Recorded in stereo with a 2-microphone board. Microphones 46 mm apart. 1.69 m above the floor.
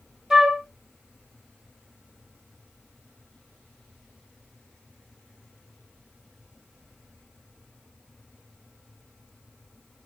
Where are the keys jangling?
No keys jangling in this recording.